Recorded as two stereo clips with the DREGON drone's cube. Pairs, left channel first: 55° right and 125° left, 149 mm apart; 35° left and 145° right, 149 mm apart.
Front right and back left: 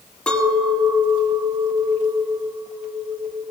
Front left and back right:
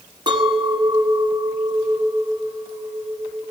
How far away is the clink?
About 1.1 m.